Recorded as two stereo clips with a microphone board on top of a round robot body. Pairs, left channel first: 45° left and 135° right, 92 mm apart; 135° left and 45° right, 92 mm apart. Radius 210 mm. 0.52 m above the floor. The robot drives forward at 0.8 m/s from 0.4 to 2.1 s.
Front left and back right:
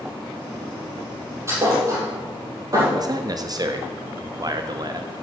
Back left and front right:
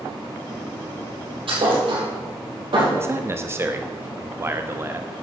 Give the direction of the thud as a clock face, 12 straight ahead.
2 o'clock.